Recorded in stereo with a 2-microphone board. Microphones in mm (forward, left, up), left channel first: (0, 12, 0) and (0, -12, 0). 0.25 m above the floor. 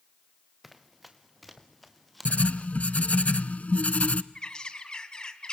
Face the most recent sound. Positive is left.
turn(degrees=35)  # may be behind; listen again after turning